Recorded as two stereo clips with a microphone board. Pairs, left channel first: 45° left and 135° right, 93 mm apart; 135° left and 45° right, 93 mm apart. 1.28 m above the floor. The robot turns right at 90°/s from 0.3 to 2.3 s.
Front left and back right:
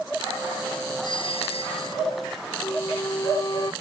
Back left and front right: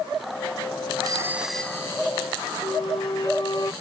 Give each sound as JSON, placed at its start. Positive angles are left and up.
{"t": 1.0, "sound": "a doorbell", "azimuth_deg": 0}
{"t": 2.6, "sound": "a flute", "azimuth_deg": 95}